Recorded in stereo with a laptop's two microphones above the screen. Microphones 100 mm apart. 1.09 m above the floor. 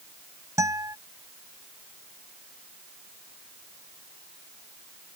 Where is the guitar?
30° right (ahead or behind).